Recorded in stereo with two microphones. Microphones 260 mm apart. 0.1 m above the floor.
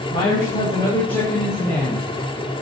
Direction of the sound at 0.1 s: 30° left (ahead or behind).